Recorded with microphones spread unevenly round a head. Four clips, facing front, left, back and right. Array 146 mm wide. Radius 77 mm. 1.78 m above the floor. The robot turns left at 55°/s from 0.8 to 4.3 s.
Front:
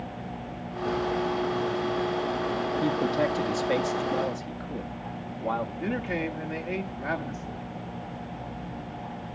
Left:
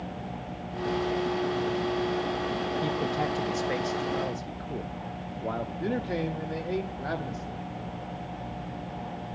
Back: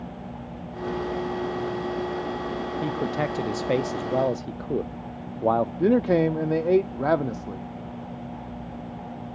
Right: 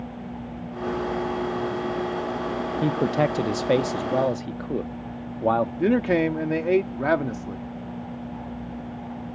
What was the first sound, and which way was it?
A man speaking, 70° right.